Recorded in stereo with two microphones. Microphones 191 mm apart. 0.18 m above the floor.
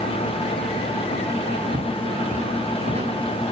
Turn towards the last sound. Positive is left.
turn(degrees=-30)  # may be behind; listen again after turning